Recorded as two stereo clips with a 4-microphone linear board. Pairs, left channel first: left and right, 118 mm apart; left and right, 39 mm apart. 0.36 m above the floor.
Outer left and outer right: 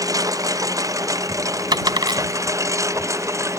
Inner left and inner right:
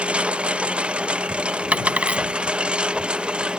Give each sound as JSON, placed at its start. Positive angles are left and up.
{"t": 0.0, "sound": "a lawn mower", "side_deg": -30}
{"t": 1.7, "sound": "a dropped coin", "side_deg": -40}